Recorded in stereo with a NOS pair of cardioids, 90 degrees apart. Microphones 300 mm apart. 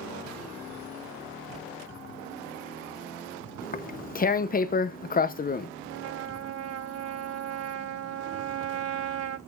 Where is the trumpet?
55° right, 3.5 m.